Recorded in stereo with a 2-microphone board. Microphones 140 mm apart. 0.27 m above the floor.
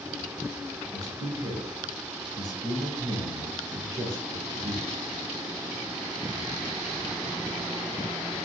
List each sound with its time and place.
0.9 s a man speaking: 30° right (ahead or behind), 1.3 m